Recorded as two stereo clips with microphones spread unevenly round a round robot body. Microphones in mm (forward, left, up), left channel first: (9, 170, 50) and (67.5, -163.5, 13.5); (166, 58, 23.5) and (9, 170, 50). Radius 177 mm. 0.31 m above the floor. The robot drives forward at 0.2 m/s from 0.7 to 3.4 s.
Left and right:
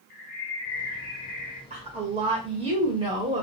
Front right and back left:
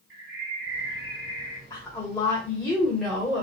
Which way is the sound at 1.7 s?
60° right.